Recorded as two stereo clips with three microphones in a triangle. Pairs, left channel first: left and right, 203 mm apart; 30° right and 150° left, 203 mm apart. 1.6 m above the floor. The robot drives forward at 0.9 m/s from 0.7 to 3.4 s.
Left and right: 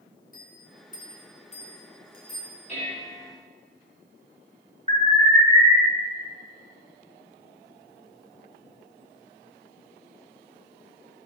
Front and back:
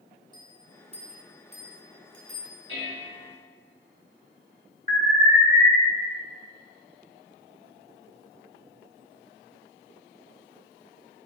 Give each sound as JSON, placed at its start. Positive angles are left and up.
{"t": 0.3, "sound": "a bell", "azimuth_deg": 90, "distance_m": 1.0}
{"t": 2.7, "sound": "dishes clattering", "azimuth_deg": 145, "distance_m": 3.5}
{"t": 4.9, "sound": "an alarm", "azimuth_deg": -150, "distance_m": 3.0}